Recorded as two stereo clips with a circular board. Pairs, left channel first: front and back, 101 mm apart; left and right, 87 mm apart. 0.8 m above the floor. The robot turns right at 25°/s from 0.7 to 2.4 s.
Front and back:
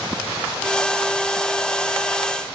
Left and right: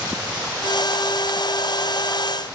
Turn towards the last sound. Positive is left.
No sound to turn to.